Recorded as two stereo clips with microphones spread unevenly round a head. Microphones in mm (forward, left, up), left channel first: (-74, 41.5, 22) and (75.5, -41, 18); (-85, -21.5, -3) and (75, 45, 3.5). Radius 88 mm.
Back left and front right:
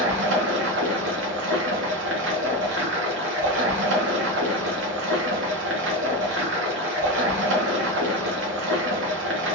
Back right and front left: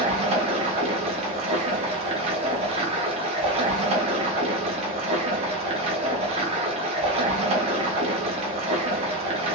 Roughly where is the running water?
Ahead right.